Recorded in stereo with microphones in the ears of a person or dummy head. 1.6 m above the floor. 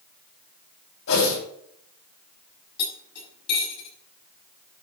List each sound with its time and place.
1.1 s a whoosh: 75° left (ahead or behind), 5.5 m
2.8 s cutlery clinking: 60° left (ahead or behind), 6.5 m